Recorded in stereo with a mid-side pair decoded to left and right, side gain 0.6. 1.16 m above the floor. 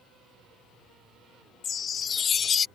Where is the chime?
40° left.